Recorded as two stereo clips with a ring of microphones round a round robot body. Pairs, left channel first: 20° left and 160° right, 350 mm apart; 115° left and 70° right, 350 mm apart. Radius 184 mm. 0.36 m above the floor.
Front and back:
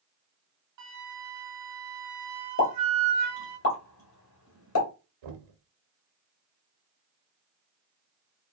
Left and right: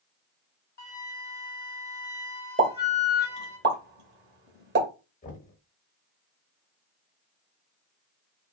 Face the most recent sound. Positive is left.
turn(degrees=180)